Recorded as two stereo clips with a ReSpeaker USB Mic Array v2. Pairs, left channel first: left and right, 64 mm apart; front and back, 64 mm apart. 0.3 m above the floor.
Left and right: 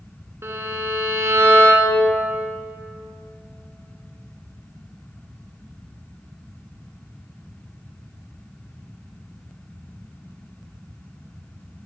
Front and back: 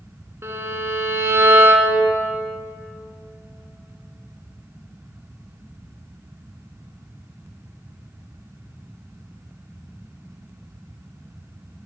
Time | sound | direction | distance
0.4 | a violin | 135° right | 0.9 m